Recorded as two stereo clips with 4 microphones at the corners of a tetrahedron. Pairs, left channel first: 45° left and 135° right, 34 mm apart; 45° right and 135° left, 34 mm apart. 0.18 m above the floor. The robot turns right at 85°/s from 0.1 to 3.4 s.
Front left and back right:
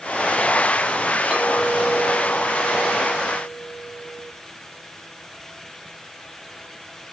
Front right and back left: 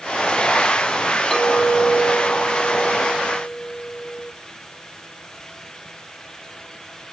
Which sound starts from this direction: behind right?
A clink, at 1.3 s.